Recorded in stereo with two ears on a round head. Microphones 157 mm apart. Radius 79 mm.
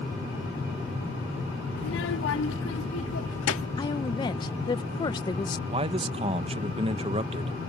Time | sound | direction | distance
1.8 | a child speaking | 65° left (ahead or behind) | ?
3.8 | a woman speaking | 25° left (ahead or behind) | ?
5.7 | a man speaking | 35° right (ahead or behind) | ?